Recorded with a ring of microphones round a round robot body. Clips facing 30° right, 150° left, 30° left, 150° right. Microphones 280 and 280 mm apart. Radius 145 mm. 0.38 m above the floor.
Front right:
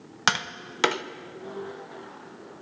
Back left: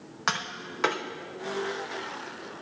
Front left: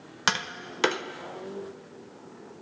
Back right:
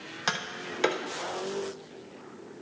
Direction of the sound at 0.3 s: 30° right.